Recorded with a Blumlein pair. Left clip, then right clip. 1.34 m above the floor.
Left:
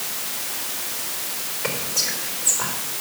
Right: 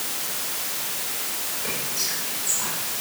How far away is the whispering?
About 3.5 m.